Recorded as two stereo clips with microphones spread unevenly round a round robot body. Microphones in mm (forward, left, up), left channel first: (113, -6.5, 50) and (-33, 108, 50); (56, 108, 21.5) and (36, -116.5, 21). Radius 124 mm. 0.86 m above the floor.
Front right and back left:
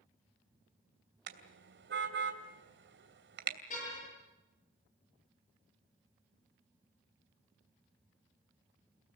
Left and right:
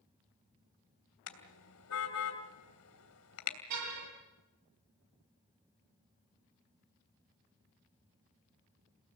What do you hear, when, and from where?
1.3 s a car horn: 120° left, 3 m
3.7 s a car horn: 95° right, 9.5 m